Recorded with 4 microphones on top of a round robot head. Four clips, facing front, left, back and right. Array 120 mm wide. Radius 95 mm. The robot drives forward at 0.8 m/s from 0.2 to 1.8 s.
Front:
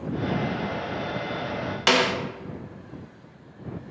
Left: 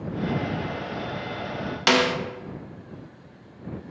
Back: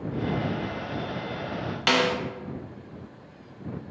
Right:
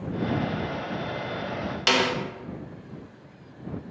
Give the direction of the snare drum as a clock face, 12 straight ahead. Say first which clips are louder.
Left 3 dB, front 1 dB; 10 o'clock.